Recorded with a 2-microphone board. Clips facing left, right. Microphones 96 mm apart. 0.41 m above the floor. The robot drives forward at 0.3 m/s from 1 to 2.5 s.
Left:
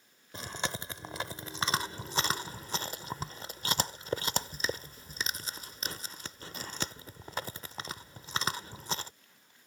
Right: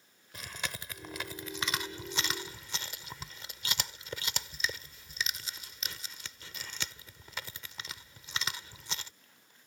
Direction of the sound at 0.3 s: 30° left (ahead or behind).